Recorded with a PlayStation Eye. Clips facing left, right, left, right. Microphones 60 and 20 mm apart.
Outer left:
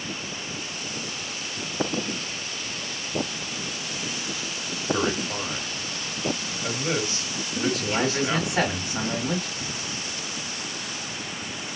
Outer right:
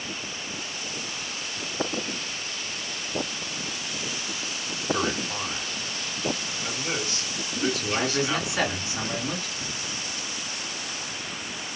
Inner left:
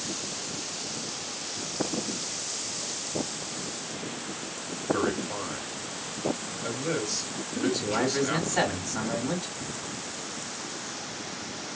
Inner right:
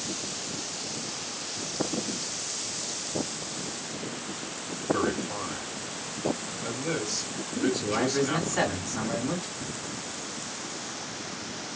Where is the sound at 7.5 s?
55° left (ahead or behind), 3 m.